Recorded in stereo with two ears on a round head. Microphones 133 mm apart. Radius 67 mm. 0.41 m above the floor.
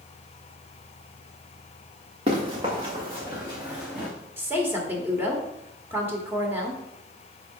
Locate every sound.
2.3 s running footsteps: 35° right (ahead or behind), 2.5 m; by 4.1 s centre (ahead or behind), 2.5 m
4.4 s a woman speaking: 15° right (ahead or behind), 1.4 m